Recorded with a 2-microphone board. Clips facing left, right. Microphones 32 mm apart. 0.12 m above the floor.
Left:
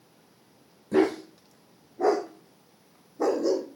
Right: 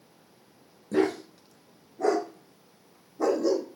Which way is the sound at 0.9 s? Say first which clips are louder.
Left 2 dB; 25° left (ahead or behind).